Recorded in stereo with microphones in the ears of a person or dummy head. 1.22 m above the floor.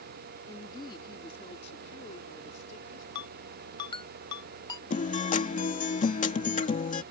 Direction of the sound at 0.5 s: 25° left (ahead or behind).